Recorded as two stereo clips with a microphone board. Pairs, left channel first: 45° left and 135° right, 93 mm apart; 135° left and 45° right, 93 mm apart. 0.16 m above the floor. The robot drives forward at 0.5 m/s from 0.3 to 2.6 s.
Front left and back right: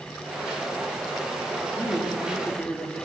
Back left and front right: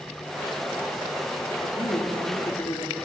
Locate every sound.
1.6 s a man speaking: 115° left, 4 m; by 3.0 s 120° left, 4 m